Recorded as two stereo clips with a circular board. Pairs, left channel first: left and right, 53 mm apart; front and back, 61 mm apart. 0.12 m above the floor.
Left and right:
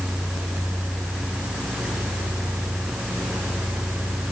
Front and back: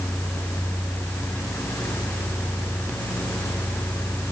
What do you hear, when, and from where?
Only background noise.